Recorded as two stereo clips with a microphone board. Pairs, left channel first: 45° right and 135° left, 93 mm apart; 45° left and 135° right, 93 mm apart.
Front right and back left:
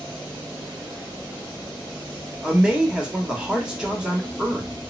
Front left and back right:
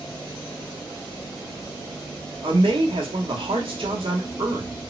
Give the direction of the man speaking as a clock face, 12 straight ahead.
5 o'clock.